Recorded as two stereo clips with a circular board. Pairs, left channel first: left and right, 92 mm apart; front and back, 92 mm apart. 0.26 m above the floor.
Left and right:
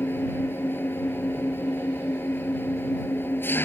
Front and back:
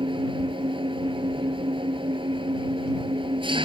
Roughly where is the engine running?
Behind left.